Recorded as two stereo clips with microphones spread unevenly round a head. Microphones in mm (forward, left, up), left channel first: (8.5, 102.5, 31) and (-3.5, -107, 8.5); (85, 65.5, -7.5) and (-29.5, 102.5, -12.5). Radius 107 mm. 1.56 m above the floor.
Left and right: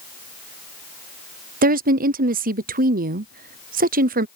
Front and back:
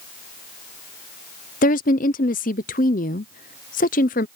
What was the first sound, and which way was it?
A woman speaking, 45° right.